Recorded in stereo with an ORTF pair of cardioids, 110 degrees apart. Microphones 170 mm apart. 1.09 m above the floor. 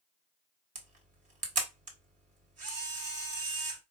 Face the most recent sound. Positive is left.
turn(degrees=-50)